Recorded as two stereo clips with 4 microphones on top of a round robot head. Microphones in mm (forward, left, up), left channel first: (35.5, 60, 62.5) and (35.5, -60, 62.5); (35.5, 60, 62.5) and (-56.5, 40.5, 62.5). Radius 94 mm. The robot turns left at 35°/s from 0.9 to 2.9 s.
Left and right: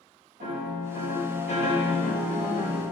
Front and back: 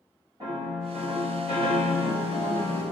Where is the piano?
105° right, 4.5 m; by 2.8 s 170° right, 4.5 m.